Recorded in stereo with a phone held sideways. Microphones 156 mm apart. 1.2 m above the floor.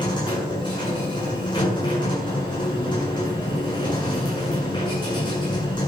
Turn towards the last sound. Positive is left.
turn(degrees=30)  # may be behind; listen again after turning